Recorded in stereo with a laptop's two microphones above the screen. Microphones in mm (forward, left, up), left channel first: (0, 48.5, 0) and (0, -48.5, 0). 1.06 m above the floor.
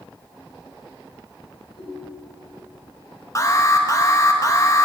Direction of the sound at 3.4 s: 35° left (ahead or behind).